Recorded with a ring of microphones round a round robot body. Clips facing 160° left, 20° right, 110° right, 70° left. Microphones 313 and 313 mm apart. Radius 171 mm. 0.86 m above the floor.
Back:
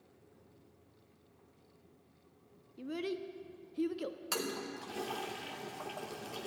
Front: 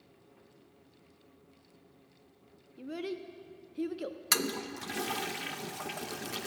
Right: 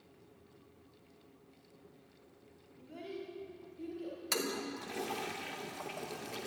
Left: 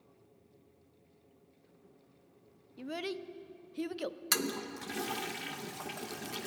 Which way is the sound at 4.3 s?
15° left.